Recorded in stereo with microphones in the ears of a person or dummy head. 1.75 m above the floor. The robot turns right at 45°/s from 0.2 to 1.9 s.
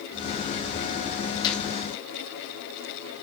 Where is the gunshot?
30° left (ahead or behind), 1.7 m; by 1.6 s 40° left (ahead or behind), 1.7 m.